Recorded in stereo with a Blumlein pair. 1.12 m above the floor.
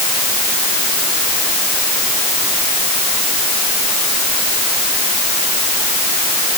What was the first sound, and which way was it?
Only background noise.